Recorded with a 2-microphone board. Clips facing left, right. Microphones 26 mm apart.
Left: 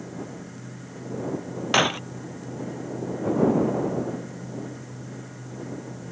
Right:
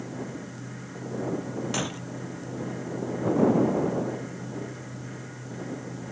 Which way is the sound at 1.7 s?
45° left (ahead or behind).